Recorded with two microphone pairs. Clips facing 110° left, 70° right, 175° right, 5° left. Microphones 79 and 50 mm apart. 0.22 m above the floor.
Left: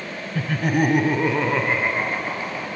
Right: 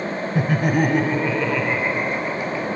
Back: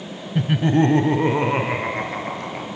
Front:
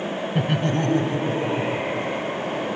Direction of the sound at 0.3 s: 60° right.